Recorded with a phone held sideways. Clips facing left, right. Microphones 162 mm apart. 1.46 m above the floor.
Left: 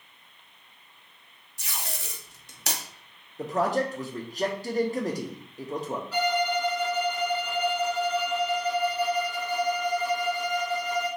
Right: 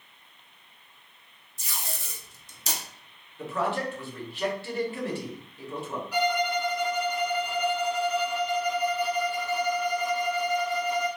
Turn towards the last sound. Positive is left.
turn(degrees=-15)  # may be behind; listen again after turning